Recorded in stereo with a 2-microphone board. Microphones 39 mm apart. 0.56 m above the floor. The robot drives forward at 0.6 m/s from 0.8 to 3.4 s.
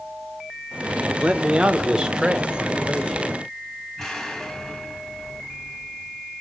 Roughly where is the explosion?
Centre.